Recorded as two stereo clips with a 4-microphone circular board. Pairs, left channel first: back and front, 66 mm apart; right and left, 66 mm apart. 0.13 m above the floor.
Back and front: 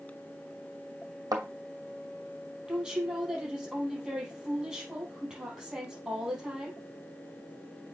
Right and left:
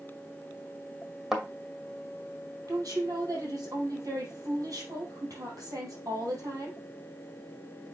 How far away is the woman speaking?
About 4 m.